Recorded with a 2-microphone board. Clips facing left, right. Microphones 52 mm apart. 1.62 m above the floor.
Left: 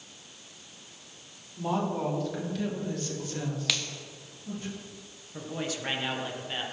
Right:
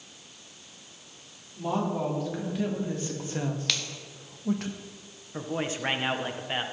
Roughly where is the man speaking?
Right.